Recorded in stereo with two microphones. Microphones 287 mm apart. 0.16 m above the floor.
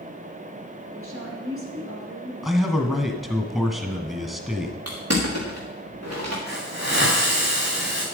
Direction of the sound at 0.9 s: 50° right (ahead or behind).